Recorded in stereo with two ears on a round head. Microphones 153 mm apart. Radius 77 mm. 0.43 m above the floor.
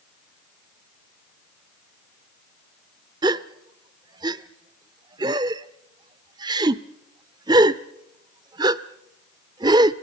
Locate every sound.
3.2 s a gasp: 25° right (ahead or behind), 0.6 m